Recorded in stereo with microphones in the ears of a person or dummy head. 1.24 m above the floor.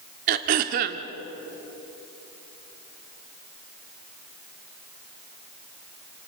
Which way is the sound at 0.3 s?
45° right (ahead or behind).